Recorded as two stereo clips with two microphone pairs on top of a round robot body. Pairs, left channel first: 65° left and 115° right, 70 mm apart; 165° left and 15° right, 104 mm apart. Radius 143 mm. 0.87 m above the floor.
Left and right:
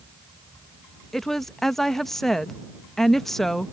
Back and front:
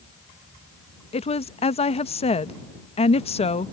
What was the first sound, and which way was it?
A woman speaking, 145° left.